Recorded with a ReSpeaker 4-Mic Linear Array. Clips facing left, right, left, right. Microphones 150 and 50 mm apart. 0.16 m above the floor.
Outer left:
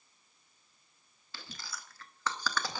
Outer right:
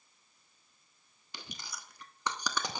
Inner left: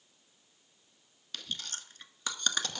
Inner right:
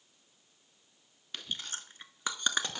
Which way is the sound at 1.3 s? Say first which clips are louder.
Even, inner right 1 dB; 20° right (ahead or behind).